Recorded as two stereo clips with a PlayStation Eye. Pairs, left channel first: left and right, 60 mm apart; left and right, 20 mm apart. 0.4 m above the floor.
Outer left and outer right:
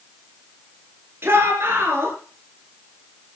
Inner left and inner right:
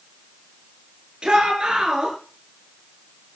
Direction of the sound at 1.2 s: 45° right (ahead or behind).